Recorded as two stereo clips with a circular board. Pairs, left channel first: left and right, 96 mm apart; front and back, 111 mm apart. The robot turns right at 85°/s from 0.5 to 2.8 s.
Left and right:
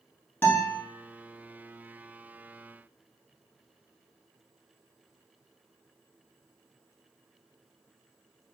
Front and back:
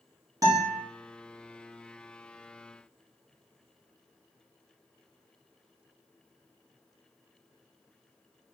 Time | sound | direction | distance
0.4 | a guitar | 150° left | 0.9 m